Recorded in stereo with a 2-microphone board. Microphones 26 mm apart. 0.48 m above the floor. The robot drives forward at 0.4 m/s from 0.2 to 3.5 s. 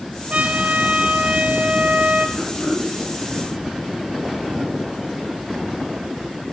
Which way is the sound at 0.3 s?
60° right (ahead or behind).